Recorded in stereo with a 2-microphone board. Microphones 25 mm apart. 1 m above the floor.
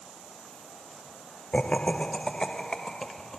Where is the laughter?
45° left (ahead or behind), 0.7 m; by 3.4 s 20° left (ahead or behind), 2 m.